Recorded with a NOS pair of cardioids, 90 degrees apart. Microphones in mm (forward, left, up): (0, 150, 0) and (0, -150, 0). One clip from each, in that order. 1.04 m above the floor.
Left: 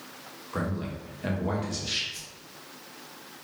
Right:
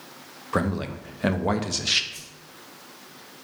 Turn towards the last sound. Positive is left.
turn(degrees=-10)